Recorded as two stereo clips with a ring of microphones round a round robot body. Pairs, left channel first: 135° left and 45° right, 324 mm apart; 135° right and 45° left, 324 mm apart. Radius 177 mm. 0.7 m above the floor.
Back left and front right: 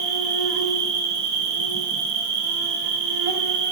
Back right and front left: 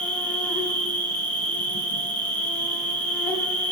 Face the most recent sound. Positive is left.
turn(degrees=-50)